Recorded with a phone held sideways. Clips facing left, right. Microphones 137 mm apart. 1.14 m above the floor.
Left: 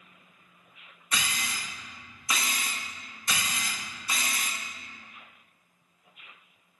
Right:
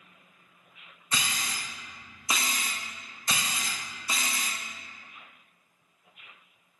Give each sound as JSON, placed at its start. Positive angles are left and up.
{"t": 1.1, "sound": "a camera shutter", "side_deg": -25, "distance_m": 0.6}